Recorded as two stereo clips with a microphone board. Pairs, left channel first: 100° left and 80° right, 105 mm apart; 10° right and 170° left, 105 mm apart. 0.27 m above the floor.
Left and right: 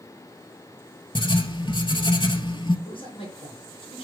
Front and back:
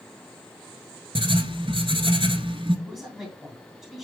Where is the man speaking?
90° left, 3 m.